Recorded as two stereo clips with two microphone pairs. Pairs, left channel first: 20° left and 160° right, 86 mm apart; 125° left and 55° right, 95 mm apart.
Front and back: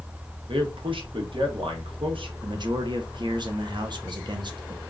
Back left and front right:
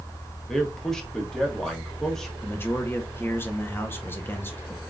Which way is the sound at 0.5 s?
150° right.